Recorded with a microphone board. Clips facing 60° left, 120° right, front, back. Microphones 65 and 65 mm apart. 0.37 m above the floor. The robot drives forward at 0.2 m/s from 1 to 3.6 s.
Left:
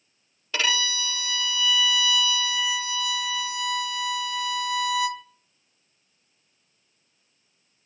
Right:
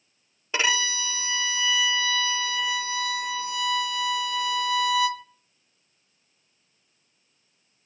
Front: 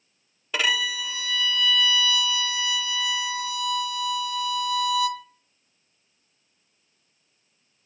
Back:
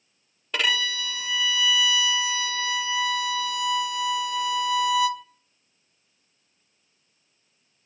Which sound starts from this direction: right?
A violin, at 0.5 s.